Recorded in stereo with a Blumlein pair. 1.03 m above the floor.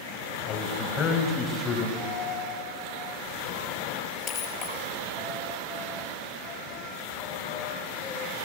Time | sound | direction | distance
0.5 | a man speaking | 30° left | 5.5 m
2.0 | a dropped coin | 30° left | 6 m